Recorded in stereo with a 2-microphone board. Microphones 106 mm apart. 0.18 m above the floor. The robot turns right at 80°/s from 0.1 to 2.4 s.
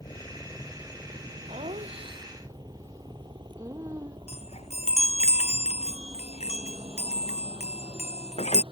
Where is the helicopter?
35° left (ahead or behind); by 8.7 s 50° right (ahead or behind).